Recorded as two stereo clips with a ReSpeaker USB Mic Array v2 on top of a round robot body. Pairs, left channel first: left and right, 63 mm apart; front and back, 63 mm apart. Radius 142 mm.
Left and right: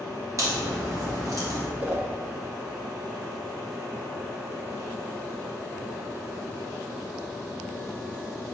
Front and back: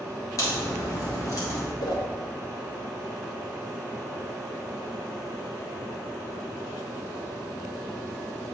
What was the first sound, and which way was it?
A crack, 45° right.